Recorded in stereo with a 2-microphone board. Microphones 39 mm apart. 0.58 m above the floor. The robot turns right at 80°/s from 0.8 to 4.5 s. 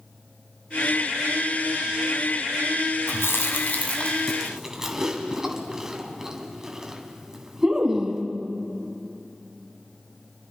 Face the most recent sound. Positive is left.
turn(degrees=-15)  # may be behind; listen again after turning